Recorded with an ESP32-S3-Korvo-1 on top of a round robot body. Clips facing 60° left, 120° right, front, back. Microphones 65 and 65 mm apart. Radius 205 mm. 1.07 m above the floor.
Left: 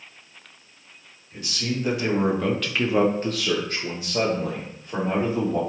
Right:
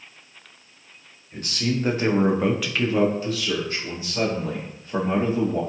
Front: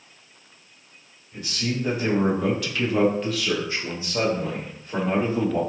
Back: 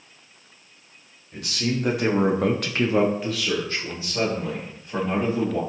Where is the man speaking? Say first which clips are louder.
Right 3 dB, back 2 dB; 155° right, 1.1 m; by 5.6 s 50° left, 1.7 m.